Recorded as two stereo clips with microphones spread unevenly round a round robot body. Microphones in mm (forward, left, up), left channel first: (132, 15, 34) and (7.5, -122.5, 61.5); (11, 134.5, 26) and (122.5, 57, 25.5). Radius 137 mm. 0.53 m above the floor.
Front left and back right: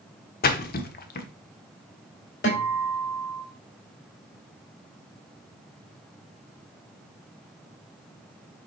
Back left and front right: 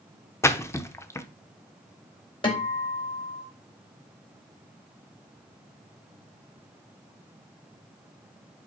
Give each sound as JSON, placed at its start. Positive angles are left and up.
{"t": 0.4, "sound": "a splash", "azimuth_deg": 75, "distance_m": 0.8}
{"t": 2.4, "sound": "a guitar", "azimuth_deg": 95, "distance_m": 3.0}